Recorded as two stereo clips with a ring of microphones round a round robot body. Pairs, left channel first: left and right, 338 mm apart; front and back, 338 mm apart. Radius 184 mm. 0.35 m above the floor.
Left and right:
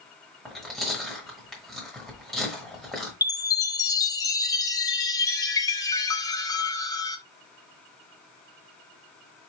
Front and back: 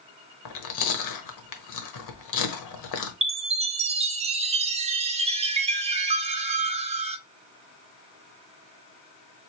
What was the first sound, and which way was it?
Chewing, straight ahead.